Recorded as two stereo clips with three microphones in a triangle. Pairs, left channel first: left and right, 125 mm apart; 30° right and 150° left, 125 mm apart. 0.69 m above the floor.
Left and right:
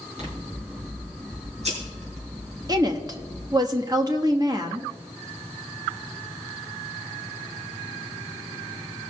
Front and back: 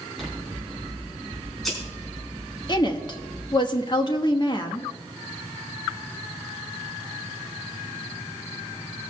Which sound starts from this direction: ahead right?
A woman speaking, at 2.7 s.